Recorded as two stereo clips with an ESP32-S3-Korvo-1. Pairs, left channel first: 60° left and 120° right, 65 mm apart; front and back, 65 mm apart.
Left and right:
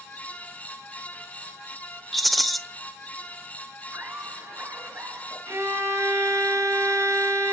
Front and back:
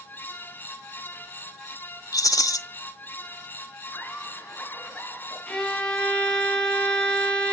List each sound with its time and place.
2.1 s a rattle: 30° right, 1.0 m
3.9 s laughter: 60° right, 7.5 m
5.5 s a violin: 70° right, 3.5 m